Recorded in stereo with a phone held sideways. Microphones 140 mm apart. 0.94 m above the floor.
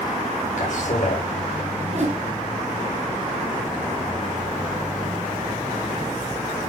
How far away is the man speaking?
About 4.5 m.